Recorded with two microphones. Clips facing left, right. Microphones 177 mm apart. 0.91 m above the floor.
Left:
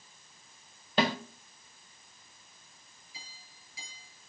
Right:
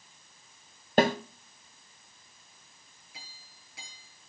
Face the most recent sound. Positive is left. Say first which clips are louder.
# right 1 dB
turn(degrees=-65)  # may be behind; listen again after turning